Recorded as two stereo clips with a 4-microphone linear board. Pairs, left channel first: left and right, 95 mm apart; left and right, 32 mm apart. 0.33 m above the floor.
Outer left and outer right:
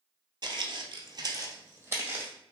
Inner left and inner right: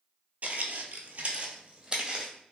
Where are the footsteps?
55° right (ahead or behind), 0.5 m; by 2.3 s 20° right (ahead or behind), 1.0 m.